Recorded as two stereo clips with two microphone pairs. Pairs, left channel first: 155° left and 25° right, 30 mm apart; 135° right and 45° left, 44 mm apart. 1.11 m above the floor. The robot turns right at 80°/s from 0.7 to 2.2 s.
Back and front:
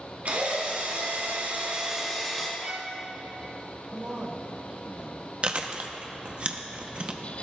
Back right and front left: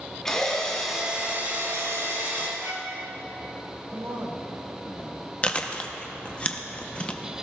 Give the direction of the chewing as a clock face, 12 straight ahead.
2 o'clock.